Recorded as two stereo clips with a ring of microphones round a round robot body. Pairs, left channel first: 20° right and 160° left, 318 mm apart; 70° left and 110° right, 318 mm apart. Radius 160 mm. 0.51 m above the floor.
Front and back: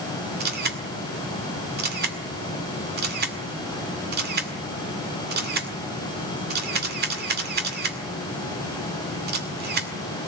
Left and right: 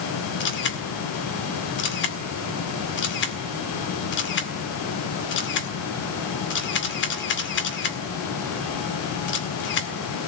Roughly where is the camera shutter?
Left.